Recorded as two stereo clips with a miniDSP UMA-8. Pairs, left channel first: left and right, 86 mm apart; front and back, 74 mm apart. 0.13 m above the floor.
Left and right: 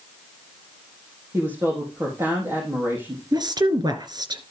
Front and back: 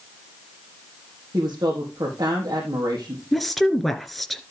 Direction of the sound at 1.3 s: 150° right.